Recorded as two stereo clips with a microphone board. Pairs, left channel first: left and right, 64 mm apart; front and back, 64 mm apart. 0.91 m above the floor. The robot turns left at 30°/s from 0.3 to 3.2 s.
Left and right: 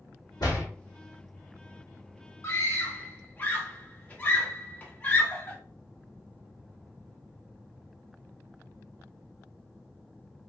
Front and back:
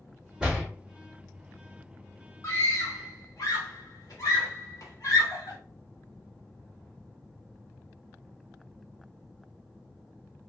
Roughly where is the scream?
Ahead left.